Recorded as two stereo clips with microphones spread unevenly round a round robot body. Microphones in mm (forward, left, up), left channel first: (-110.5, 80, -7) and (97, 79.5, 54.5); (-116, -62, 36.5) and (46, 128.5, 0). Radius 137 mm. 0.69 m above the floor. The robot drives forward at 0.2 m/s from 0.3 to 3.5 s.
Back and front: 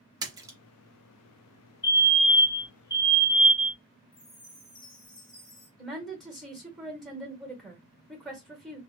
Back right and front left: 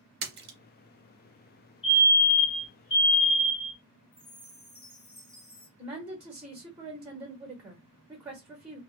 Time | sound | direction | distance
0.2 | a splash | 15° left | 0.5 m
1.8 | a fire alarm | 165° left | 1.9 m
4.1 | a chime | 175° left | 1.6 m
5.8 | a woman speaking | 115° left | 1.1 m